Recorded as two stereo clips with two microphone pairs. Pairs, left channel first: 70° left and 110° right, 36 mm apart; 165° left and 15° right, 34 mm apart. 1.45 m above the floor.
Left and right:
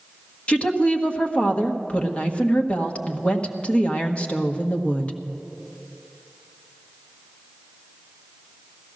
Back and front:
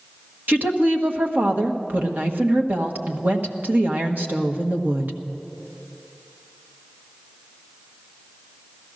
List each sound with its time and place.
0.5 s a woman speaking: 15° left, 1.4 m